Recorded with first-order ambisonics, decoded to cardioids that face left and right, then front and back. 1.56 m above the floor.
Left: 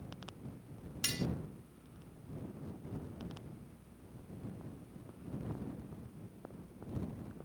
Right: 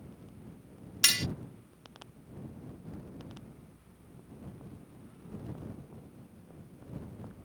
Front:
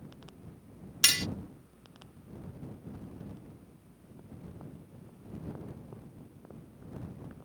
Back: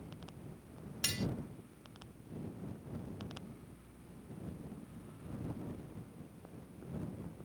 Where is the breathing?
I don't hear breathing.